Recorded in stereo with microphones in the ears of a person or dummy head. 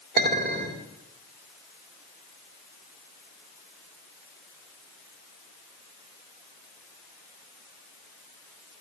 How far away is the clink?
About 1.6 m.